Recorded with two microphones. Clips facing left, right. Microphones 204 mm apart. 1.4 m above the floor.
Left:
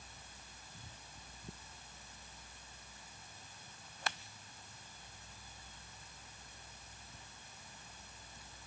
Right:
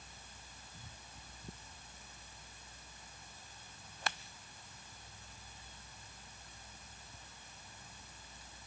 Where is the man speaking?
No man speaking in this recording.